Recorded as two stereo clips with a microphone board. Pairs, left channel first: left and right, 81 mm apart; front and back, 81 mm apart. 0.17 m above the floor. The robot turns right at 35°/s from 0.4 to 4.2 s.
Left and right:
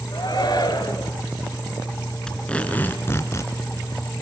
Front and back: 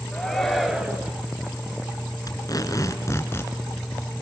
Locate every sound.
0.1 s a shout: 85° left, 3 m; by 1.1 s 110° left, 3 m
2.3 s tape being pulled: 10° left, 2.5 m; by 3.5 s 55° left, 2.5 m